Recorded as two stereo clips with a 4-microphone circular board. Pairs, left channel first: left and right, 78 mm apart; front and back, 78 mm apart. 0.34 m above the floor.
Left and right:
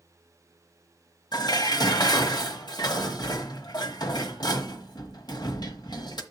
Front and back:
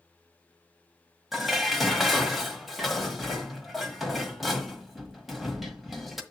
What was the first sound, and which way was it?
Dishes clattering, 90° left.